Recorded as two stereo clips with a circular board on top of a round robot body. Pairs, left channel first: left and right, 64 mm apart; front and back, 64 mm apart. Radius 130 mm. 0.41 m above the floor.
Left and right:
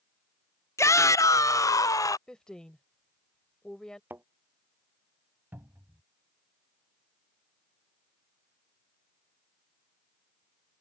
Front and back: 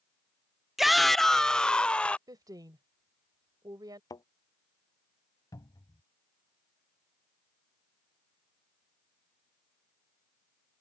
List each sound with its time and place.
0.8 s a shout: 95° left; by 2.2 s 70° left
2.3 s a woman speaking: 170° left
4.1 s a thud: 25° right
5.5 s a cupboard door: 30° right